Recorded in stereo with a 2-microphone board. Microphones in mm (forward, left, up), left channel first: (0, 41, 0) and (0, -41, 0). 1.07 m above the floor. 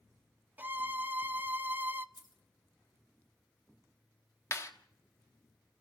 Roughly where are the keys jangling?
Left.